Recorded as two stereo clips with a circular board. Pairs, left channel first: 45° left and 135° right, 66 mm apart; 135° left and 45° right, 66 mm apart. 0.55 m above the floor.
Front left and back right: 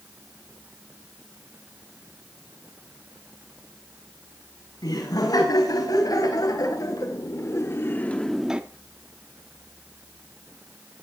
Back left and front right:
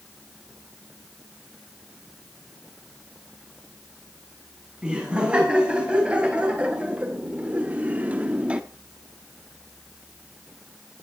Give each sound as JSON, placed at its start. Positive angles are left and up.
{"t": 4.8, "sound": "laughter", "azimuth_deg": 30, "distance_m": 5.0}